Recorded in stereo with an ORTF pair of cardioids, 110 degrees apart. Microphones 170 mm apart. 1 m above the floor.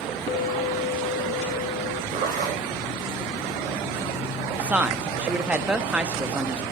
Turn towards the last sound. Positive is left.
turn(degrees=-10)